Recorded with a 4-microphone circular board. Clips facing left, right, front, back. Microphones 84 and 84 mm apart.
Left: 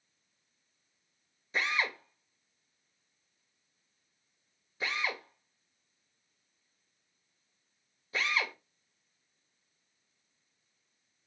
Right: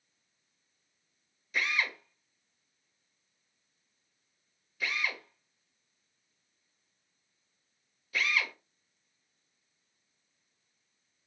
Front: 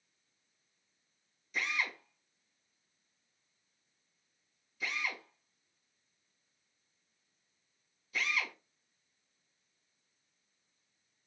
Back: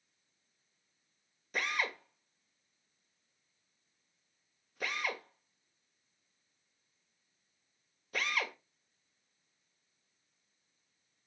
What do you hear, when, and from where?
1.5 s a drill: 150° left, 1.9 m